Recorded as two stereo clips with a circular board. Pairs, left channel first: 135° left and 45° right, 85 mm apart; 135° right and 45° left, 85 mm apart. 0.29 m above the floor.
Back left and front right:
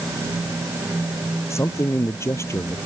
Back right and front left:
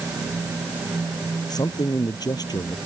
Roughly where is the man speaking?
Behind.